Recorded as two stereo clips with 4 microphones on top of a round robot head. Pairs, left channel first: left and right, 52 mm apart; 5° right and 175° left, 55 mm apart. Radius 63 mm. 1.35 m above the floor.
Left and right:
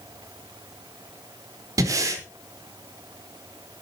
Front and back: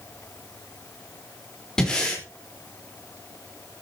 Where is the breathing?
85° right, 3.5 m.